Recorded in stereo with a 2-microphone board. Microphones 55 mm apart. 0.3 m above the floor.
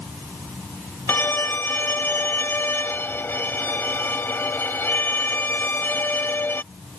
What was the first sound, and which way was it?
A violin, 40° left (ahead or behind).